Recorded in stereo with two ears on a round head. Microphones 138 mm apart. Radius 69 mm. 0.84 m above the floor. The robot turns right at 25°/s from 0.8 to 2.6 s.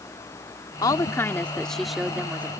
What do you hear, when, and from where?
0.8 s a woman speaking: 155° left; by 2.5 s 165° right